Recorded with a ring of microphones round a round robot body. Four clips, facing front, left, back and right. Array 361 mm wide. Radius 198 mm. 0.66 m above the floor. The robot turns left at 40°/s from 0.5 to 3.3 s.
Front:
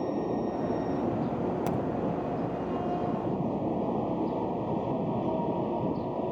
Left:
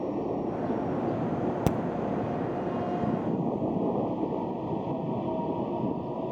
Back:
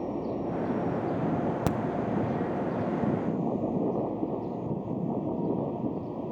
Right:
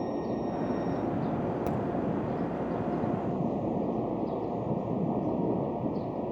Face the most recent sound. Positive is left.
turn(degrees=50)